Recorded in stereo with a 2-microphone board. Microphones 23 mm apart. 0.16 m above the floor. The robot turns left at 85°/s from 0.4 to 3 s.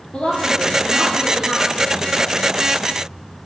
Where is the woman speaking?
100° left, 3 m; by 2.8 s 105° right, 3 m.